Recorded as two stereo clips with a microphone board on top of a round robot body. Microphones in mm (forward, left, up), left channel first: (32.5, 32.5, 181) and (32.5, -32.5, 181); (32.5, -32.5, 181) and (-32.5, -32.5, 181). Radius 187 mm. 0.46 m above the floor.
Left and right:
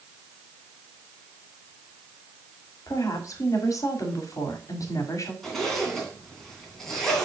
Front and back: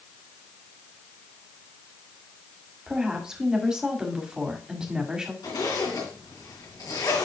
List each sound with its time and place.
2.9 s a woman speaking: 100° left, 2.5 m
5.4 s a zipper: 5° left, 2.5 m